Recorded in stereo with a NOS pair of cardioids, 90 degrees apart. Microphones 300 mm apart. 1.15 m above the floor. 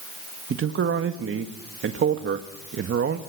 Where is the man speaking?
45° right, 1.7 m.